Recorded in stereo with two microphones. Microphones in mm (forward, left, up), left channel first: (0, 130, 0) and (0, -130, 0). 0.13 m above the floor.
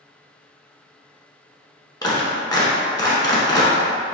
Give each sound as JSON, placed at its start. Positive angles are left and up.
{"t": 2.0, "sound": "a clap", "side_deg": 15, "distance_m": 0.8}